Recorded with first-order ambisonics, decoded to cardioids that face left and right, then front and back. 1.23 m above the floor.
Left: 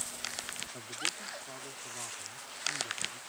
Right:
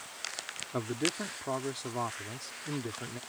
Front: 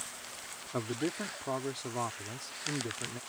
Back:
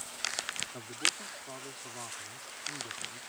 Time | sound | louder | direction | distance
0.7 | a man speaking | right 6 dB, even | 50° right | ?